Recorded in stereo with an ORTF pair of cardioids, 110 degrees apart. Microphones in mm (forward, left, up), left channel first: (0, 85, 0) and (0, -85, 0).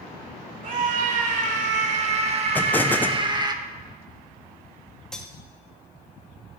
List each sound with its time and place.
0.6 s a scream: 50° right, 3 m; by 3.5 s 25° right, 1.5 m
2.5 s an explosion: 10° left, 0.8 m
5.1 s cutlery clinking: 5° left, 1.6 m